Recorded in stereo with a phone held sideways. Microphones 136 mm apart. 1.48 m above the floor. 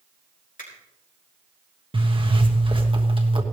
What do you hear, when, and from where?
0.6 s a finger snap: 85° left, 4.5 m
1.9 s a zipper: 40° right (ahead or behind), 1.3 m